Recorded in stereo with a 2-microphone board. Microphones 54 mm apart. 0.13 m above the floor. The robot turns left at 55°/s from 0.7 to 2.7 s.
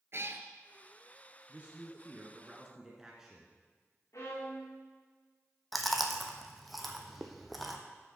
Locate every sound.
0.1 s a cat meowing: 55° right (ahead or behind), 0.8 m
1.5 s a man speaking: 95° right, 1.5 m; by 3.5 s 165° right, 1.5 m
4.1 s a violin: 65° left (ahead or behind), 4 m
5.7 s chewing: centre (ahead or behind), 1.1 m